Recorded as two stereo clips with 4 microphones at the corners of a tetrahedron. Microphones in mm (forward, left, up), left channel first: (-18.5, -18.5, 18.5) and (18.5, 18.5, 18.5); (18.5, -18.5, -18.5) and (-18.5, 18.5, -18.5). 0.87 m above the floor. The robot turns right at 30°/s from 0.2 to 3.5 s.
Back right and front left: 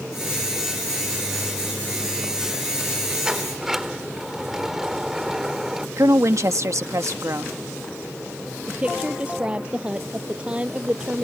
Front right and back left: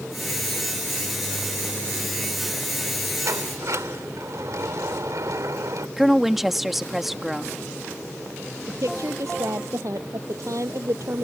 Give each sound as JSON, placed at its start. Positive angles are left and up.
{"t": 3.2, "sound": "a sliding door", "azimuth_deg": 120}
{"t": 6.0, "sound": "a woman speaking", "azimuth_deg": 50}
{"t": 8.7, "sound": "a woman speaking", "azimuth_deg": 115}